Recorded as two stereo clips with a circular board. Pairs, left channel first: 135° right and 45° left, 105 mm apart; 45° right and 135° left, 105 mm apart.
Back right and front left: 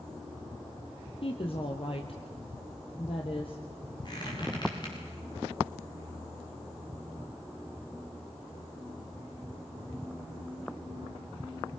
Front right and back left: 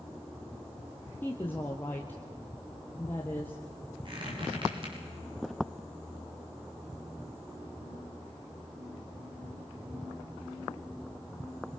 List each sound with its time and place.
1.2 s a woman speaking: 115° right, 2 m
4.0 s a squeak: 175° left, 9.5 m